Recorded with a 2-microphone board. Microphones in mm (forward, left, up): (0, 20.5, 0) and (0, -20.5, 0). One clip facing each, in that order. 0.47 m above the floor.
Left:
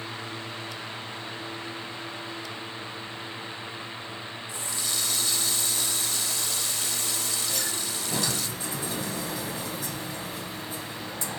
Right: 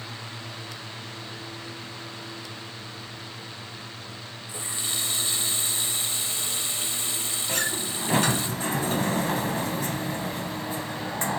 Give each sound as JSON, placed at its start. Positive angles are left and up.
{"t": 4.5, "sound": "a running tap", "side_deg": -30, "distance_m": 1.3}
{"t": 7.5, "sound": "a sliding door", "side_deg": -45, "distance_m": 1.3}